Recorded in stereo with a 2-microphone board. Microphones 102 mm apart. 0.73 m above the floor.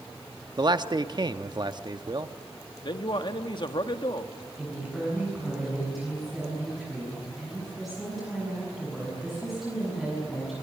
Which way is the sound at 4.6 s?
Centre (ahead or behind).